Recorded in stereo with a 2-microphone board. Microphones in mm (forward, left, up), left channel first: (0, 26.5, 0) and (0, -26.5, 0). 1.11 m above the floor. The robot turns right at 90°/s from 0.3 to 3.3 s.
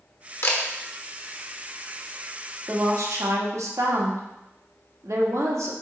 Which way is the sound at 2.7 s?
130° right.